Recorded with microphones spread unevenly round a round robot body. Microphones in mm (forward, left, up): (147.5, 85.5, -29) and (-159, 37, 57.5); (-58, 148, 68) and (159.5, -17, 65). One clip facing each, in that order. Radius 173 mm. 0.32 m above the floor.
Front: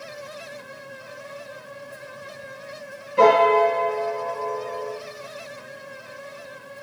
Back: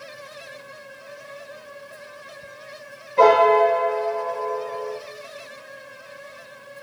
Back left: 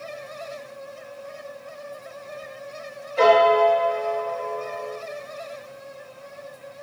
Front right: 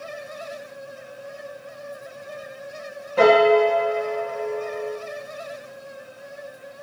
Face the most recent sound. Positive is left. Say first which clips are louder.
# back 1 dB, front right 3 dB
turn(degrees=-55)